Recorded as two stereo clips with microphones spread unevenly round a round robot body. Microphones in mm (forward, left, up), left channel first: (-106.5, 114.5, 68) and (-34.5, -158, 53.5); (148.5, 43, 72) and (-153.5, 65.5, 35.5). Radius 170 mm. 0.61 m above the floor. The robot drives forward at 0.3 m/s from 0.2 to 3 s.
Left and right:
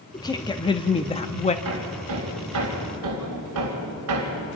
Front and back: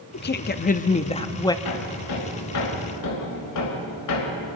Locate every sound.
0.1 s a woman speaking: 35° left, 1.1 m; by 1.6 s 75° left, 0.9 m
1.6 s hammering: 35° right, 3.5 m; by 4.6 s 40° right, 3 m